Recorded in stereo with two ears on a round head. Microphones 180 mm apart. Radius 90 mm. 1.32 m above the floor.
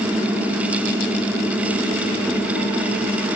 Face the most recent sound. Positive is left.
No sound to turn to.